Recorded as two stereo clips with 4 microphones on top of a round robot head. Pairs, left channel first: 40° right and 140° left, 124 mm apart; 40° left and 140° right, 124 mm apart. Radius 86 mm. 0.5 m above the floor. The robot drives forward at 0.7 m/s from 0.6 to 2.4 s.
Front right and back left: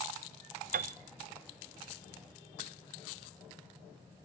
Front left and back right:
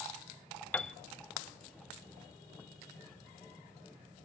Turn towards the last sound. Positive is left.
turn(degrees=160)